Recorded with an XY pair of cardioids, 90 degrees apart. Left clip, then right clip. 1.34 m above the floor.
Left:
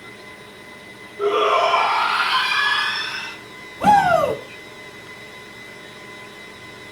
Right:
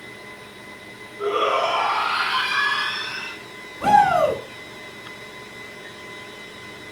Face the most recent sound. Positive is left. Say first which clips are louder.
# left 1 dB
turn(degrees=65)